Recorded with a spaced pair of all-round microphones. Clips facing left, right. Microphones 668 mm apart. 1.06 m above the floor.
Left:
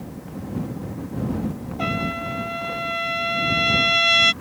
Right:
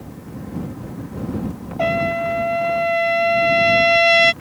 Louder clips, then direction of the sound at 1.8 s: Right 7 dB; 75° right (ahead or behind).